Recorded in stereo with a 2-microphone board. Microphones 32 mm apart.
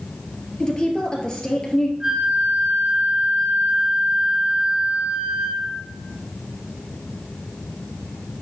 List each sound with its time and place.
0.6 s a woman speaking: 20° left (ahead or behind), 2 m
2.0 s a flute: 25° right (ahead or behind), 2.5 m